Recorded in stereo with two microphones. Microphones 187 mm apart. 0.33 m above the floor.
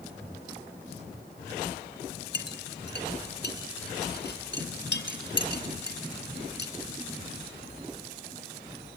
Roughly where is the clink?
Left.